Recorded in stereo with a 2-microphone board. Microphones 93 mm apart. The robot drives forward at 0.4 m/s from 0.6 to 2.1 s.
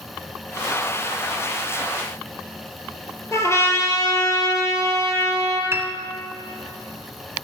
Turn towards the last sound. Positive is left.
turn(degrees=-25)  # may be behind; listen again after turning